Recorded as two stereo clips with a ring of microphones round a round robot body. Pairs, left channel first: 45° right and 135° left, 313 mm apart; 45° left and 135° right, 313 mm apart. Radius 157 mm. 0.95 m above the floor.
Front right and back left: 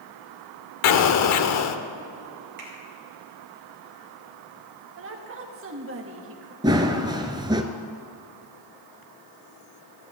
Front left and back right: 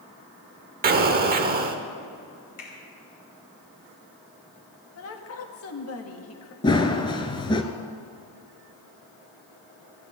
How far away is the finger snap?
About 5 m.